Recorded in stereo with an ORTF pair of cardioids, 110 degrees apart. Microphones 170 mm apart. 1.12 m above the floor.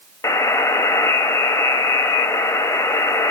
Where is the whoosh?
No whoosh in this recording.